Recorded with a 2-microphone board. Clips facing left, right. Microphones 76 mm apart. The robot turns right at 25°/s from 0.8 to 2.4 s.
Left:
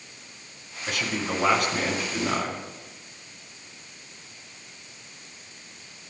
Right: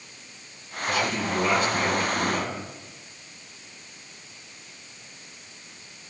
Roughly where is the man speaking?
Left.